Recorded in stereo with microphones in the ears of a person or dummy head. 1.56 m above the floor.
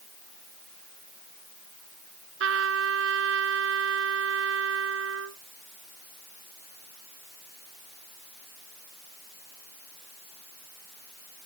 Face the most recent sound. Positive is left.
turn(degrees=-70)  # may be behind; listen again after turning